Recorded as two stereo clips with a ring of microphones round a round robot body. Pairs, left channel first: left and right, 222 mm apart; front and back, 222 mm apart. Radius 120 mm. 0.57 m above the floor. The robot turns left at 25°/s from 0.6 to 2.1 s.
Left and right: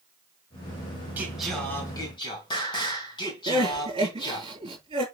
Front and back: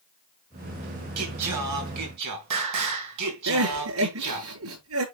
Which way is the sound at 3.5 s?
165° right.